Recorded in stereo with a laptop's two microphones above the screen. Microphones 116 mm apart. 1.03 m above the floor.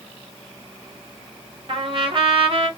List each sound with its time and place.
1.7 s a trumpet: 50° right (ahead or behind), 1.1 m